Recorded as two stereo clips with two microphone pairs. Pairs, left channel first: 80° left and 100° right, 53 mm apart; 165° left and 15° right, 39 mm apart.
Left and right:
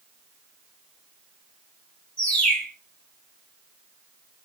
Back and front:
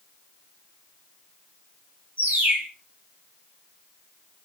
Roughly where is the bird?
Ahead.